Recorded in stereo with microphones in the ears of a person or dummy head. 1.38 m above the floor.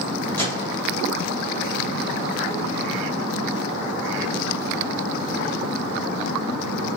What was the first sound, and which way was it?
A microwave, 15° left (ahead or behind).